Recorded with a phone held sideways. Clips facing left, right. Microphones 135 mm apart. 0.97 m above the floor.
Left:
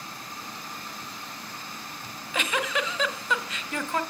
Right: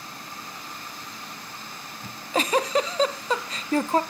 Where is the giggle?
35° right (ahead or behind), 1.0 m.